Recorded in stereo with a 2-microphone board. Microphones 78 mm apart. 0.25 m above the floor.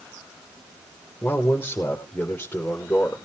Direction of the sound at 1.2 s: 25° left (ahead or behind).